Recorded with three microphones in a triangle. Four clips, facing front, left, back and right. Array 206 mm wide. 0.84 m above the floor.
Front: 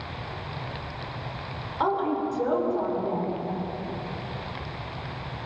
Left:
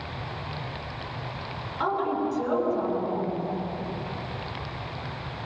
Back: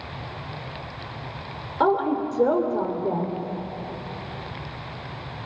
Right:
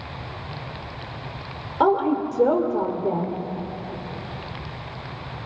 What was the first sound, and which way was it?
A woman speaking, 125° right.